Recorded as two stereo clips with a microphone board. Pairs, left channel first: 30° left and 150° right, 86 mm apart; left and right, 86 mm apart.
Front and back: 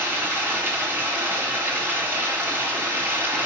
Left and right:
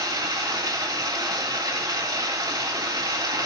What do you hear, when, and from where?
0.0 s running water: 95° right, 2 m